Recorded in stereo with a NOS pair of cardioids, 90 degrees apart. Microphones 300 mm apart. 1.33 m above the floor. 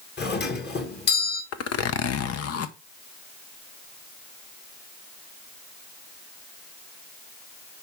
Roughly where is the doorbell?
Ahead left.